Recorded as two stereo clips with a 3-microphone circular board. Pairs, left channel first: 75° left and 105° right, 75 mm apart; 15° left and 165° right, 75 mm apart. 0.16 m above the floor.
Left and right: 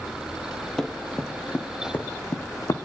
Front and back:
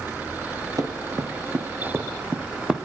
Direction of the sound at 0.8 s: 160° left.